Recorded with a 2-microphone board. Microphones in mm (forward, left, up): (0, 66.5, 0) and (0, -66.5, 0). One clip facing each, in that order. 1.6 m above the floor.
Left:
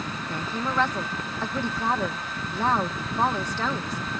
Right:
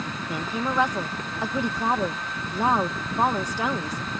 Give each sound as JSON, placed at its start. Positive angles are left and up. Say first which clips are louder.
{"t": 0.3, "sound": "a woman speaking", "louder": "right 2 dB", "side_deg": -15}